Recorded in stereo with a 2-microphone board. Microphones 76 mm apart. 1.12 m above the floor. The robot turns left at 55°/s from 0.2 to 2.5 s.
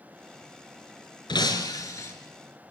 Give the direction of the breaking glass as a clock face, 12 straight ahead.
9 o'clock.